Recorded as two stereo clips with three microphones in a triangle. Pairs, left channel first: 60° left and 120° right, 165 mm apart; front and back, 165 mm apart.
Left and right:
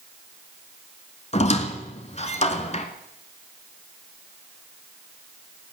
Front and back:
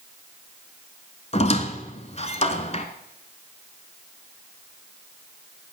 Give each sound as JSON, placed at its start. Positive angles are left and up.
{"t": 1.3, "sound": "a squeak", "azimuth_deg": 30, "distance_m": 1.3}